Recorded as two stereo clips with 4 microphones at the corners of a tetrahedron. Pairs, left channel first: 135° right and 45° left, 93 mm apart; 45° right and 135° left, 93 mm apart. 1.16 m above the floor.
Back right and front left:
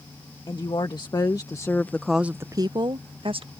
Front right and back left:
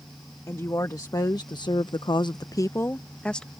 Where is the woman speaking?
100° right; by 3.5 s 40° left.